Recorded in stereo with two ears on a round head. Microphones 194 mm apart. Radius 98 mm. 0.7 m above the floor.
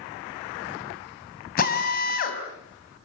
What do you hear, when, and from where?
1.6 s a drill: 40° left (ahead or behind), 4.5 m